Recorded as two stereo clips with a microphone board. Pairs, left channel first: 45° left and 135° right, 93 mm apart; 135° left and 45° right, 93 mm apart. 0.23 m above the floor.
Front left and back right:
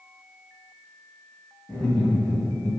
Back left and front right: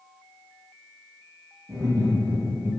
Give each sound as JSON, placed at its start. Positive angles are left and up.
{"t": 1.7, "sound": "laughter", "azimuth_deg": -30, "distance_m": 1.9}